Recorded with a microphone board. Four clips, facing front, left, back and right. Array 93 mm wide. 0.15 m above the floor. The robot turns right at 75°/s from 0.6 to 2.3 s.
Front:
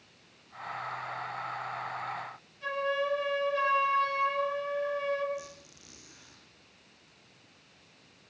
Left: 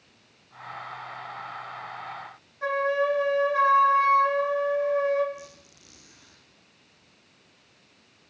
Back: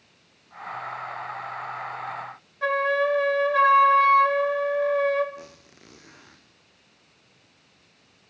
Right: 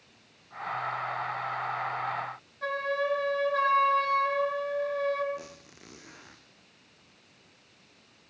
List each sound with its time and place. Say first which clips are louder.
2.6 s a flute: left 5 dB, back 8 dB; 165° left, 5.5 m
5.3 s a squeak: right 2 dB, front 1 dB; 135° right, 3.5 m